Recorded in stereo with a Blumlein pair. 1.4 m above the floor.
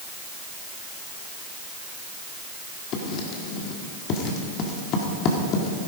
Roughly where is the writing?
Ahead left.